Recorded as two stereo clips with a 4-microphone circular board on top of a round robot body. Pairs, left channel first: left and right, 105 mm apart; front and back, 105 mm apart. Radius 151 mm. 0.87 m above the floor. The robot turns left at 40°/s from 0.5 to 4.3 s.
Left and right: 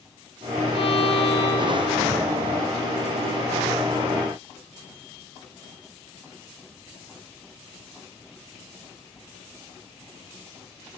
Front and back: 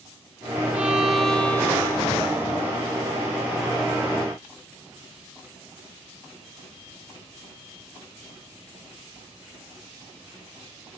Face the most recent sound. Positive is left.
turn(degrees=-35)